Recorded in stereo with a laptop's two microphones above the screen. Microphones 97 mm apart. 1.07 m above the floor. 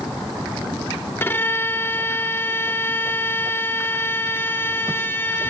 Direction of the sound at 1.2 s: 25° left (ahead or behind).